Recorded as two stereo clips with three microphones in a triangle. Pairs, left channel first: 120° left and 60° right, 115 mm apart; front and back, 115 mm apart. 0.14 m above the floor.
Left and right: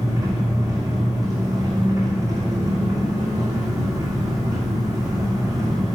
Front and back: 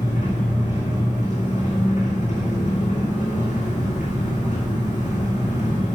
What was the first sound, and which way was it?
An engine running, straight ahead.